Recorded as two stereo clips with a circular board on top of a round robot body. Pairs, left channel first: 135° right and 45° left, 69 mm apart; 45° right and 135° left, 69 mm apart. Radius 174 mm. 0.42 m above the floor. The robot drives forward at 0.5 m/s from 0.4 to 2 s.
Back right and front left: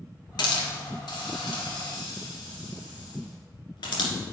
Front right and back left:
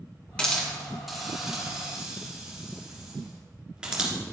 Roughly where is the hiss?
Behind right.